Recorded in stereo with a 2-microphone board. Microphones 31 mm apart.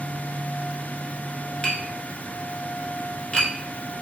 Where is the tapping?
35° left (ahead or behind), 1.0 m.